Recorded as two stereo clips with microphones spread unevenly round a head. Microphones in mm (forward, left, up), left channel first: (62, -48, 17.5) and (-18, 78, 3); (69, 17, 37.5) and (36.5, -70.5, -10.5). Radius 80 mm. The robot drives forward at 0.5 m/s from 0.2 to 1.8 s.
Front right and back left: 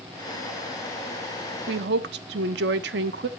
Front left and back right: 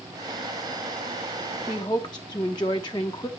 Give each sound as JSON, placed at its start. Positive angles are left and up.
{"t": 1.7, "sound": "a woman speaking", "azimuth_deg": 135, "distance_m": 0.6}